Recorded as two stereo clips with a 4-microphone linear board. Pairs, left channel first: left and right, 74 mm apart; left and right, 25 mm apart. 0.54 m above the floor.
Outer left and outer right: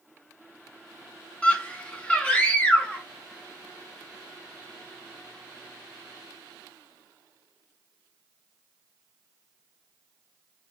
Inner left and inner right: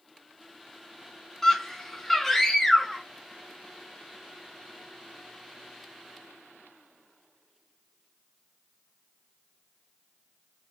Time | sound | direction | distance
1.4 | a scream | 15° left (ahead or behind) | 0.7 m